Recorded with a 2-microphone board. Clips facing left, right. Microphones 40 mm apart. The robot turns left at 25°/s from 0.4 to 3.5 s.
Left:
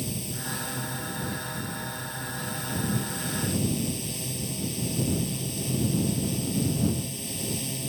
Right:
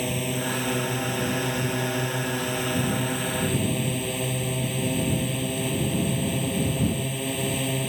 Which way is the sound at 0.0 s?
60° right.